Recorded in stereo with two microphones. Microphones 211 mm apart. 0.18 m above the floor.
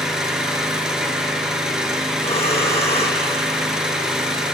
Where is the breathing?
30° left (ahead or behind), 2.0 m.